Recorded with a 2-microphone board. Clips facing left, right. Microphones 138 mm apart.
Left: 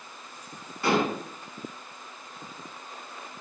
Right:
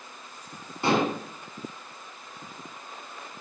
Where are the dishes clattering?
25° right (ahead or behind), 0.8 m.